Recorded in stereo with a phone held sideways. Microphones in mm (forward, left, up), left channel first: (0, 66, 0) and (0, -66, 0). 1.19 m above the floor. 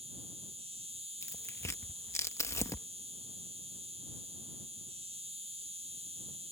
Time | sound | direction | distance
0.0 | an insect | 55° right (ahead or behind) | ?
1.2 | tearing paper | 20° left (ahead or behind) | ?